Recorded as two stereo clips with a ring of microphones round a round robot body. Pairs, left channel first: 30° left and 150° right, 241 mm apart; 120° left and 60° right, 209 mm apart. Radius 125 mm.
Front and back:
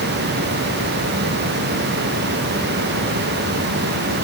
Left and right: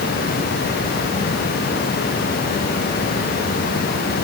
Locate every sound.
Only background noise.